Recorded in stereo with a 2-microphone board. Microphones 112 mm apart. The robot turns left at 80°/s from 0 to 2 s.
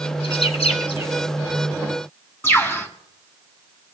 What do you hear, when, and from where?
0.2 s a bird: 50° left (ahead or behind), 1.1 m; by 1.1 s 40° left (ahead or behind), 1.1 m
2.4 s a bird: 20° left (ahead or behind), 1.6 m